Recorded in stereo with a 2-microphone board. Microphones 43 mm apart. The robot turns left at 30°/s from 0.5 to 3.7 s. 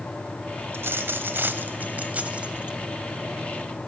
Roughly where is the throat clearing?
I don't hear throat clearing.